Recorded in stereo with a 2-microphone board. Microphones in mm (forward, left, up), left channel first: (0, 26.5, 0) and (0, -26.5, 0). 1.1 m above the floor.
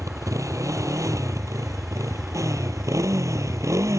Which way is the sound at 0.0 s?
85° right.